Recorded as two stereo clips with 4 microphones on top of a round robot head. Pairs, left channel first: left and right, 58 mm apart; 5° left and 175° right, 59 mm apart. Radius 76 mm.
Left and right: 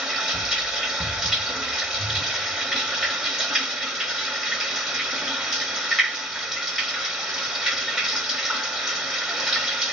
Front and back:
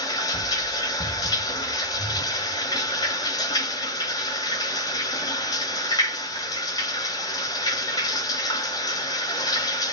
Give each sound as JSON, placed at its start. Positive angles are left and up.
{"t": 0.0, "sound": "running water", "azimuth_deg": -10, "distance_m": 1.0}